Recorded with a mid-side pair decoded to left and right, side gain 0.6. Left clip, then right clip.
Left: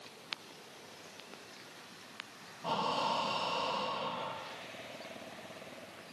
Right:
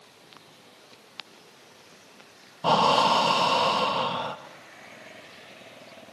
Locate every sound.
2.6 s breathing: 65° right, 1.1 m